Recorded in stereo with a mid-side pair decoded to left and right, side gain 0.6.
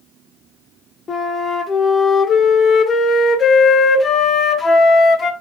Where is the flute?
30° left, 1.0 m.